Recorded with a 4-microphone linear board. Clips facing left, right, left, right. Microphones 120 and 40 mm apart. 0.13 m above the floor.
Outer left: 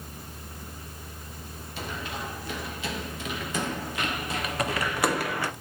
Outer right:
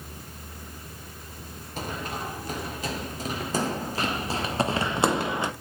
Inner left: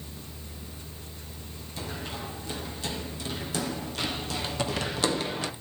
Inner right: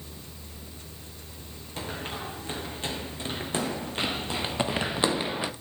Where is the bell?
I don't hear a bell.